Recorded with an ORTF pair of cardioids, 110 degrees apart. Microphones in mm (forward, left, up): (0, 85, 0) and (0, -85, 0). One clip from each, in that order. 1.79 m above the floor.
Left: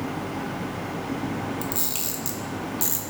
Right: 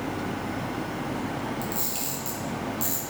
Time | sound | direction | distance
1.6 | a camera shutter | 25° left | 0.6 m